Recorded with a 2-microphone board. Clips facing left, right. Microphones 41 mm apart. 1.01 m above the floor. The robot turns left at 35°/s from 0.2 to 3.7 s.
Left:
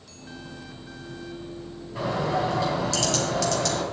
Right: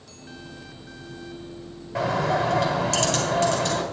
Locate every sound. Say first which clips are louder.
1.9 s a bird: right 3 dB; 100° right, 2.5 m; by 3.8 s 160° right, 2.5 m